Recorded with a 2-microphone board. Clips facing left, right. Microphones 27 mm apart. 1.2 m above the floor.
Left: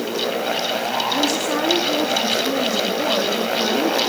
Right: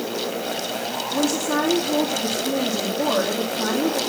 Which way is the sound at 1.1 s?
5° left (ahead or behind).